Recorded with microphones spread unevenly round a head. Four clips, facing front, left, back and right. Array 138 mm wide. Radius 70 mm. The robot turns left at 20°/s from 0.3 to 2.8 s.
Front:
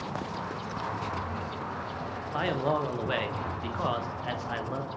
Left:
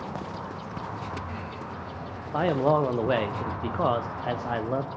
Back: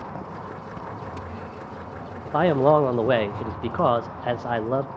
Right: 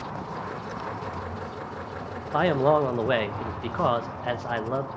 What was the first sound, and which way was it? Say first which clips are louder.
A man speaking: right 2 dB, back 11 dB; 160° right.